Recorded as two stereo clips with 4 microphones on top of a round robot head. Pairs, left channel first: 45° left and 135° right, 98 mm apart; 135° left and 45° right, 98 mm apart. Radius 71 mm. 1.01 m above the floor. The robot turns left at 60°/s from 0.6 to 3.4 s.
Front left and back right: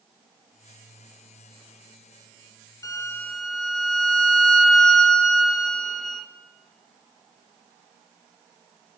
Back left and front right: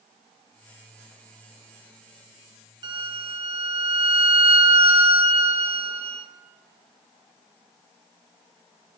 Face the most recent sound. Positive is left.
turn(degrees=-45)